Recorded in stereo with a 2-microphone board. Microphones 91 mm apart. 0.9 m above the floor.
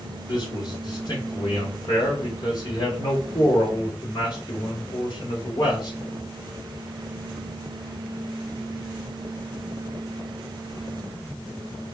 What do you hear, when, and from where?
0.3 s a man speaking: 60° left (ahead or behind), 3.5 m